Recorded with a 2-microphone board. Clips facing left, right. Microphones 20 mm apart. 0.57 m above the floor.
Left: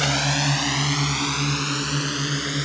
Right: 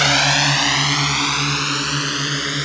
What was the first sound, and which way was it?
A drone, 40° right (ahead or behind).